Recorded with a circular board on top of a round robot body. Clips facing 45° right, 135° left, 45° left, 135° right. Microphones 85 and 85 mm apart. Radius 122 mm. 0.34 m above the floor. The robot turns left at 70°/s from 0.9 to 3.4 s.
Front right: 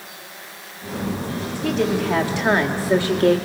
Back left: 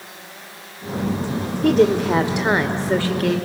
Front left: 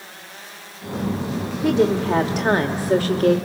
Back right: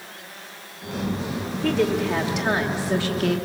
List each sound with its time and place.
1.6 s a woman speaking: 120° left, 1.3 m; by 3.4 s 5° right, 1.3 m